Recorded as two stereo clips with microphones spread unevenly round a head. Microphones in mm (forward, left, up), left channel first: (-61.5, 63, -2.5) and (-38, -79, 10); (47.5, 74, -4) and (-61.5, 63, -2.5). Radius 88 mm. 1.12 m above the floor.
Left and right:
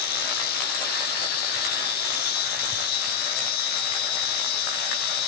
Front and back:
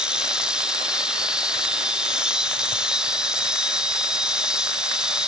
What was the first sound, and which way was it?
An insect, 105° left.